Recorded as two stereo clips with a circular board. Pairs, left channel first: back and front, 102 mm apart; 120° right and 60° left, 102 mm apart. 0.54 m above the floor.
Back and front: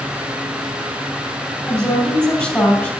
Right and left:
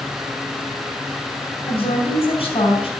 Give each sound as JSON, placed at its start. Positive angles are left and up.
{"t": 1.7, "sound": "a woman speaking", "azimuth_deg": -100, "distance_m": 2.5}